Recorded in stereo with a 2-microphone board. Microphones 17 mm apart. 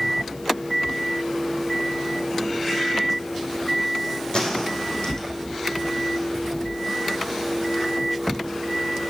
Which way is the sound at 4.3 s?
70° left (ahead or behind).